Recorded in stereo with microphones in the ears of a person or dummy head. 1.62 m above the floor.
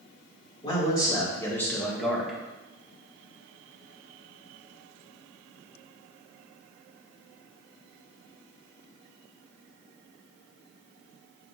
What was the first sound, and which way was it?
A man speaking, 25° left (ahead or behind).